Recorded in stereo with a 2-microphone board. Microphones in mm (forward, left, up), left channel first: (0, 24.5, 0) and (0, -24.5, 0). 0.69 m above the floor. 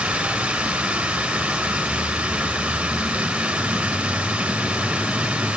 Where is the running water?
20° right (ahead or behind), 2.5 m.